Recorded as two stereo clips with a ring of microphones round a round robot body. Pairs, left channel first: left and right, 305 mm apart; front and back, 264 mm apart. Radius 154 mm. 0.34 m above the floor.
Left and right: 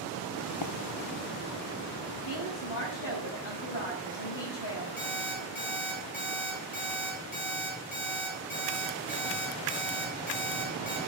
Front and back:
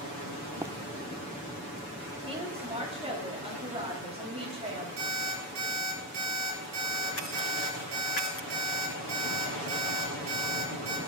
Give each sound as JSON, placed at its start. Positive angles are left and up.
{"t": 0.6, "sound": "running footsteps", "azimuth_deg": 100, "distance_m": 0.7}
{"t": 2.2, "sound": "a woman speaking", "azimuth_deg": 115, "distance_m": 8.0}
{"t": 5.0, "sound": "an alarm clock", "azimuth_deg": 150, "distance_m": 5.5}